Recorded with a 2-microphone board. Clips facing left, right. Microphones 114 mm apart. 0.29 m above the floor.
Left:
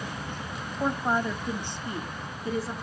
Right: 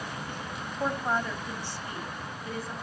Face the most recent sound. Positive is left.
turn(degrees=30)  # may be behind; listen again after turning